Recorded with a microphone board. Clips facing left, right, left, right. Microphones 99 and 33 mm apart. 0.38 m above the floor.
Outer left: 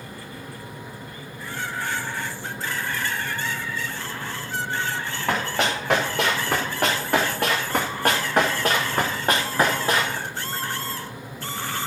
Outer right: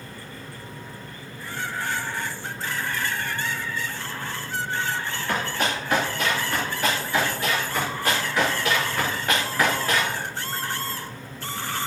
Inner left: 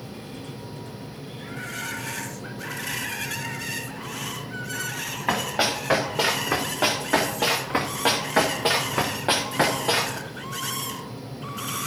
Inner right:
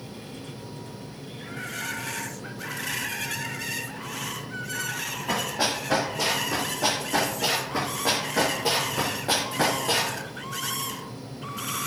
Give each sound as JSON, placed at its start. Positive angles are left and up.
{"t": 5.3, "sound": "running footsteps", "side_deg": 80, "distance_m": 3.0}